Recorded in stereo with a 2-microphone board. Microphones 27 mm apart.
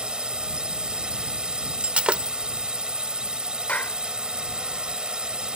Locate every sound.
0.0 s a drone: 35° right (ahead or behind)
1.8 s breaking glass: 50° right (ahead or behind)
3.7 s a clap: 65° left (ahead or behind)